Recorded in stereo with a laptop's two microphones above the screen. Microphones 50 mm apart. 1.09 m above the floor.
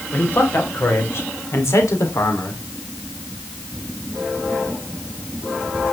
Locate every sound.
0.1 s a man speaking: 45° left (ahead or behind), 4 m; by 2.6 s 85° left, 3 m